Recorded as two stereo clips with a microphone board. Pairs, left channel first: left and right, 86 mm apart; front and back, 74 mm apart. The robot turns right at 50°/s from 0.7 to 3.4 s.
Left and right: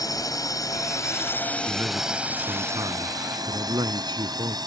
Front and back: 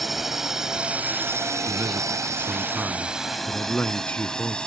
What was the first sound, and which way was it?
A drone, 95° left.